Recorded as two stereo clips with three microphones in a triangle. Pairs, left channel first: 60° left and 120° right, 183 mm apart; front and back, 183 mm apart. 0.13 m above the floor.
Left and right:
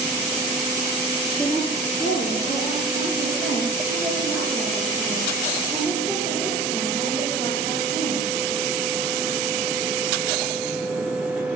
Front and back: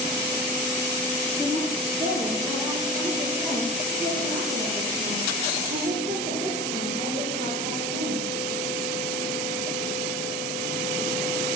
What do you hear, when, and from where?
1.4 s a woman speaking: 80° left, 2.5 m; by 8.3 s 130° left, 7 m